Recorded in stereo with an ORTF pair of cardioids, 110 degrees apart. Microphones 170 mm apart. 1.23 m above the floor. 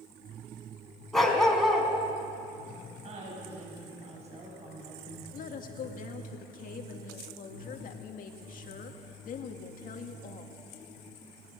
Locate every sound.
1.1 s a dog barking: straight ahead, 3.5 m
3.0 s a woman speaking: 40° right, 6.5 m
5.3 s a woman speaking: 55° left, 2 m